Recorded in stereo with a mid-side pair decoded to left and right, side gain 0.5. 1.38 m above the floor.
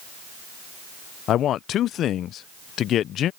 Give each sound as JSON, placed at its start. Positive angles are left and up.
{"t": 1.3, "sound": "a man speaking", "azimuth_deg": 65}